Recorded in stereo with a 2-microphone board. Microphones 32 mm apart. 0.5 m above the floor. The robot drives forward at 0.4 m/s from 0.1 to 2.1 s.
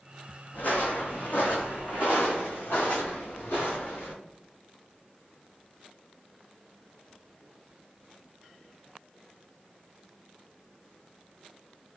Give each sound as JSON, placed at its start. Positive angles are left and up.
{"t": 0.5, "sound": "footsteps", "side_deg": 65, "distance_m": 1.1}